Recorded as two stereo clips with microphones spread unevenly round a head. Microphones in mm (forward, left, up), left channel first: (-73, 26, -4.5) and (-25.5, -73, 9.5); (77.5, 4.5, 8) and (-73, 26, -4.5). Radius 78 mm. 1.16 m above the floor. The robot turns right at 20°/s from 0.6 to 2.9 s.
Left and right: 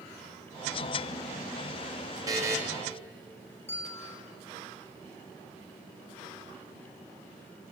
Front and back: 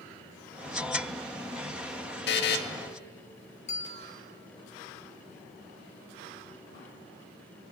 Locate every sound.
2.3 s a buzzer: 5° left, 2 m; by 2.6 s 15° left, 2 m
3.7 s a bell: 40° left, 2.5 m